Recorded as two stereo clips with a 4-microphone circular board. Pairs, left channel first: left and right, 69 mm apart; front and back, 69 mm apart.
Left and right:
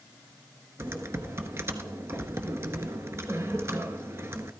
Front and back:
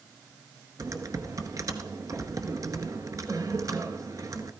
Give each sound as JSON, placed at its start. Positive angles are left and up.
{"t": 0.8, "sound": "typing on a keyboard", "azimuth_deg": -145, "distance_m": 0.8}